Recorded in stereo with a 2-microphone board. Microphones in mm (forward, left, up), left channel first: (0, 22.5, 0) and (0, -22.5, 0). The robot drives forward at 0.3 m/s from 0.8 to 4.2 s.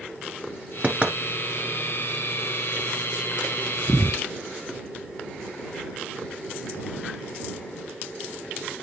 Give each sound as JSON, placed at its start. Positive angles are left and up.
{"t": 0.8, "sound": "knocking", "side_deg": -30, "distance_m": 1.0}